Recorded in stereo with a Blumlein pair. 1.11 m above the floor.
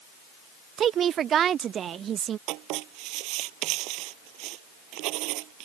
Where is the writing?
40° right.